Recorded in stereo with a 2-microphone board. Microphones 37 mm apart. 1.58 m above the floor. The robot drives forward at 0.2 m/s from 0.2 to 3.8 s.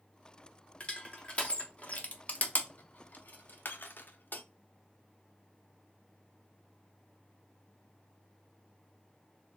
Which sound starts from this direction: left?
Crushing, at 0.8 s.